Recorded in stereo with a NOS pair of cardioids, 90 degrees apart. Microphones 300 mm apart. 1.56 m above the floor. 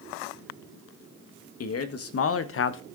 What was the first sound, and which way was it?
A man speaking, 55° left.